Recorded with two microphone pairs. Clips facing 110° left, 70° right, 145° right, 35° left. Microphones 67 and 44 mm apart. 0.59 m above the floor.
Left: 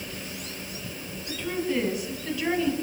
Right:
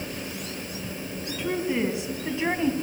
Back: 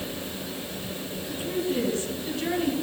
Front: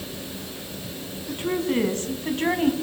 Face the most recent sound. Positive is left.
turn(degrees=-15)